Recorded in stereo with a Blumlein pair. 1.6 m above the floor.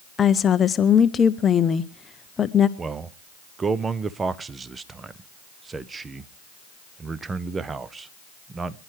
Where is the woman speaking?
20° left, 0.7 m.